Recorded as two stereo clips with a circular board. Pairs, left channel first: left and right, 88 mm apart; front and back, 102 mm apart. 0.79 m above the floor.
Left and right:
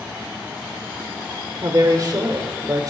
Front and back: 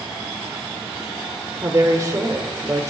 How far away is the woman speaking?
About 3 m.